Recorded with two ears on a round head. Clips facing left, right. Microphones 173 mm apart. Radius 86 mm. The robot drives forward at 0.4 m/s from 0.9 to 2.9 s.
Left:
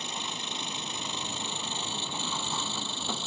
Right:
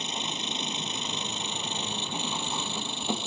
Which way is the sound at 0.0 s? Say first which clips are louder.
Right 3 dB; 20° right (ahead or behind).